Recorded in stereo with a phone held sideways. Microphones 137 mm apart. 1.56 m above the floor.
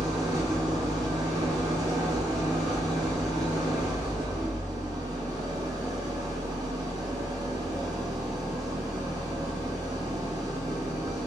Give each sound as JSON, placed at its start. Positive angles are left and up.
{"t": 0.0, "sound": "an engine running", "side_deg": -25, "distance_m": 0.7}